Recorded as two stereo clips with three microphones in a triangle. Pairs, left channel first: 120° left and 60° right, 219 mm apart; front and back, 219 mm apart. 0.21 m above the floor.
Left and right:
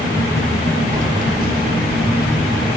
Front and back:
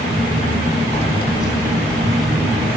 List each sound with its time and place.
0.9 s keys jangling: 35° right, 0.8 m; by 2.8 s 100° right, 1.4 m